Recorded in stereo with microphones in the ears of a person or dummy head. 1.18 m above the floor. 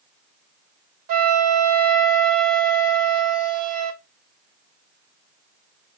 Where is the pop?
I don't hear a pop.